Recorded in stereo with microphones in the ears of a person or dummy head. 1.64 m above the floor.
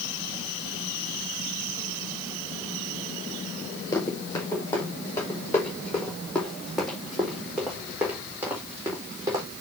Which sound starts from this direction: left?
Running footsteps, at 3.9 s.